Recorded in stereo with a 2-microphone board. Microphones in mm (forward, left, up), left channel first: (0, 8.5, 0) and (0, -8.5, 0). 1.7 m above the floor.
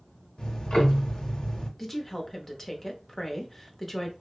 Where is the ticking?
80° left, 0.7 m.